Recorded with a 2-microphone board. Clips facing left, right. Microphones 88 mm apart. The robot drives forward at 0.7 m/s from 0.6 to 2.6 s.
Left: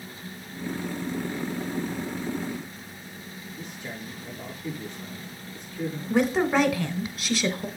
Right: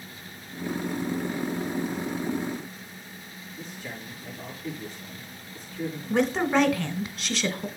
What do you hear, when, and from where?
3.6 s a man speaking: 20° left (ahead or behind), 6.5 m
6.1 s a woman speaking: 5° left (ahead or behind), 0.9 m